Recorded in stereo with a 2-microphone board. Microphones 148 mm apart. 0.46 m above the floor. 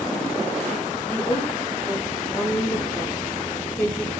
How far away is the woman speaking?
About 9 m.